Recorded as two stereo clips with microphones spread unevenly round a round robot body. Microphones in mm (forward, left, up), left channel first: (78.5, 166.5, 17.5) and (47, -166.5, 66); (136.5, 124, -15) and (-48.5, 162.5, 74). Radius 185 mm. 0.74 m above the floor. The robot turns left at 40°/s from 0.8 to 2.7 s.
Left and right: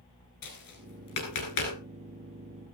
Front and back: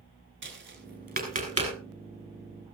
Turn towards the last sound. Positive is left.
turn(degrees=65)